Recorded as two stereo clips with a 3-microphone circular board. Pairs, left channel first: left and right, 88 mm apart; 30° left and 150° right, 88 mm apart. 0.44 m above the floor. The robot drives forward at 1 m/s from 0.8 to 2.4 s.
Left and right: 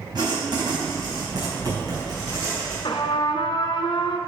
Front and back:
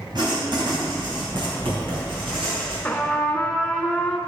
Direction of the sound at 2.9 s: 110° left.